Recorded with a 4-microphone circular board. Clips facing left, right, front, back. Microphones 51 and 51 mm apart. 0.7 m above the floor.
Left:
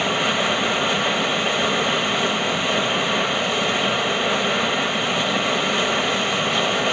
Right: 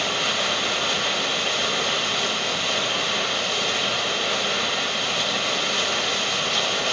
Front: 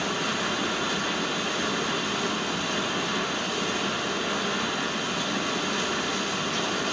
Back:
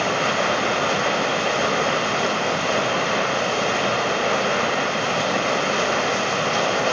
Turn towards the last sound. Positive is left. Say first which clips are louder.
# left 4 dB, back 7 dB
turn(degrees=160)